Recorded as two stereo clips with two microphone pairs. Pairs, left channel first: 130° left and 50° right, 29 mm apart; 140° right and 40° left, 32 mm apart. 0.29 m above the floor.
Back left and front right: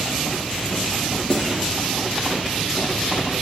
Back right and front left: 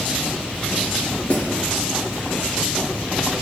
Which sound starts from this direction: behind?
A snare drum, at 1.3 s.